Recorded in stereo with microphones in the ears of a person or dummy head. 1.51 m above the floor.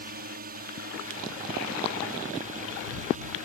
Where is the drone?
50° right (ahead or behind); by 3.5 s 45° right (ahead or behind).